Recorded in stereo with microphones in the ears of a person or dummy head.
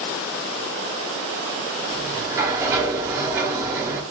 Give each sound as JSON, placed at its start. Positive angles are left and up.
{"t": 1.9, "sound": "a sliding door", "side_deg": -15, "distance_m": 0.9}